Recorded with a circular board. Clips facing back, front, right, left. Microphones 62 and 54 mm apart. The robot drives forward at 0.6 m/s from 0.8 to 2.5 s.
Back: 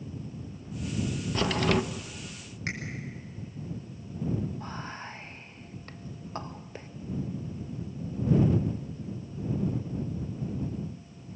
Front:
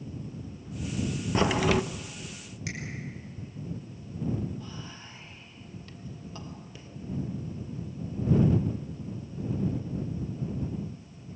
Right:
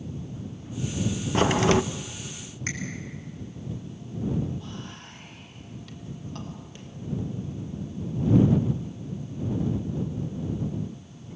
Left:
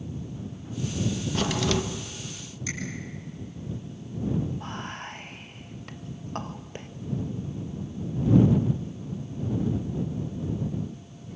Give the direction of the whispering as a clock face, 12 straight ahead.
7 o'clock.